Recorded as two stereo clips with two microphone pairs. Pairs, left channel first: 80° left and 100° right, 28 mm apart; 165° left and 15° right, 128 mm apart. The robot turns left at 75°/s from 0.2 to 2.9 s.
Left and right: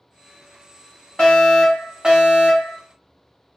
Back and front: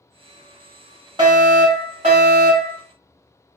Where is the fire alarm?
25° left, 1.5 m; by 2.8 s 90° right, 1.5 m.